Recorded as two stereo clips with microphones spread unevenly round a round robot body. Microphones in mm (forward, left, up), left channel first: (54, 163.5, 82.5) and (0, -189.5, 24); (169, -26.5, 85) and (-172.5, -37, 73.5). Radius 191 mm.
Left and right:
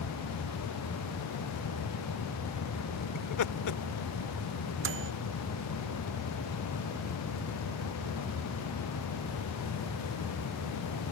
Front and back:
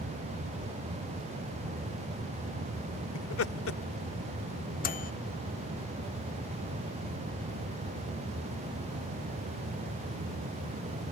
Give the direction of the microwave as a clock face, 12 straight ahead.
2 o'clock.